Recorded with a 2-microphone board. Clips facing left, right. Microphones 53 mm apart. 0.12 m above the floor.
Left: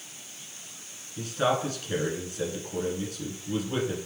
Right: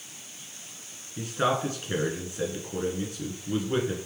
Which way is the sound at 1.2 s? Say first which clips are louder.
Even; 25° right (ahead or behind).